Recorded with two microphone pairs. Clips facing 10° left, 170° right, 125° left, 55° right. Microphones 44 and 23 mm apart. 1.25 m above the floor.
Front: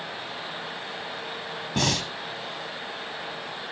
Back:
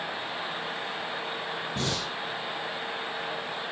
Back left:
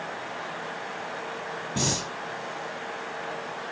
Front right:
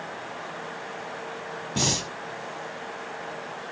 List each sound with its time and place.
1.8 s breathing: 5° left, 2.5 m